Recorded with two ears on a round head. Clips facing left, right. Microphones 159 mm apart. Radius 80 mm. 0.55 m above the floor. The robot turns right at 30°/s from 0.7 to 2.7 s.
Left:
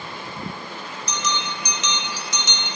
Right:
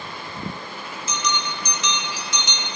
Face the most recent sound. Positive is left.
turn(degrees=45)